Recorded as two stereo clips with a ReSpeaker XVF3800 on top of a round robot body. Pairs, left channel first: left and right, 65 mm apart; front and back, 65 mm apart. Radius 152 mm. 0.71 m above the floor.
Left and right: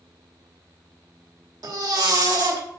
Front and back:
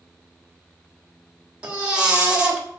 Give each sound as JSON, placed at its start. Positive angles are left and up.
{"t": 1.6, "sound": "a baby crying", "azimuth_deg": -105, "distance_m": 3.0}